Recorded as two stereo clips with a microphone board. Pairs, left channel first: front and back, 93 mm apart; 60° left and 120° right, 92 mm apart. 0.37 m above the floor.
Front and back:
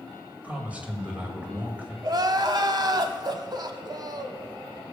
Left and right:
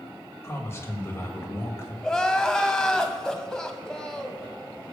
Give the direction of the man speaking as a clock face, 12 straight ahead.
8 o'clock.